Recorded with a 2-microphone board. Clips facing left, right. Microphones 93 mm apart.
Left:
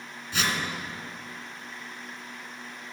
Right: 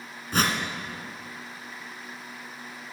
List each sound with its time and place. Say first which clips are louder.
0.3 s a whoosh: right 4 dB; 45° right (ahead or behind), 1.5 m